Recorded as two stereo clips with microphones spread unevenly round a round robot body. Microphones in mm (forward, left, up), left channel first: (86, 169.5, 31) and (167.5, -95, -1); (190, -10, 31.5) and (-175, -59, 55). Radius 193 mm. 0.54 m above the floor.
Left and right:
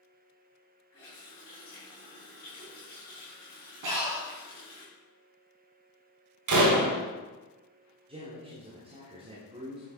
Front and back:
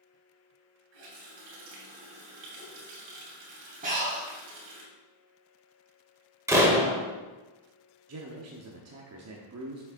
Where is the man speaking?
135° right, 1.0 m.